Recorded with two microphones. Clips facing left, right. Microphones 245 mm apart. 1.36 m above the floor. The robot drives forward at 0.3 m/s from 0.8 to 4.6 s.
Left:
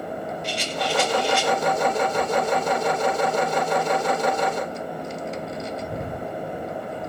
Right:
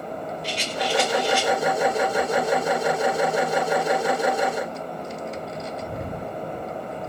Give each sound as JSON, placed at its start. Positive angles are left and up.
{"t": 0.4, "sound": "a rattle", "side_deg": -40, "distance_m": 5.0}